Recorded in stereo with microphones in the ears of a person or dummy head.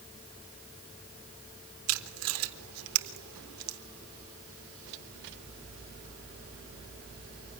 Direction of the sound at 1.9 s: 90° right.